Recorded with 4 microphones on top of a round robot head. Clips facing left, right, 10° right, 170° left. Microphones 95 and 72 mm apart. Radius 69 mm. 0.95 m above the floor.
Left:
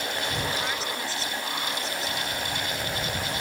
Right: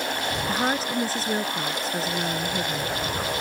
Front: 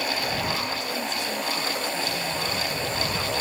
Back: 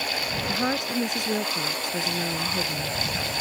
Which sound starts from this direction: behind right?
A woman speaking, at 0.5 s.